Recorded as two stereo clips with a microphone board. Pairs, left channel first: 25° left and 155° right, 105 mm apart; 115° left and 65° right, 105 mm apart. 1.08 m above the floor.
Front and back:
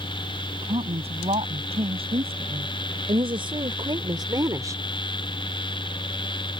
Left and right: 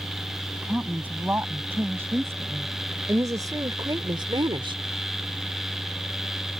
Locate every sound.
0.6 s a woman speaking: 140° right; by 4.8 s 95° right